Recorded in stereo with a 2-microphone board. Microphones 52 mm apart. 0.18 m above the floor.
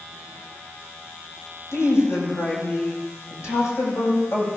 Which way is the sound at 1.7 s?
65° left (ahead or behind).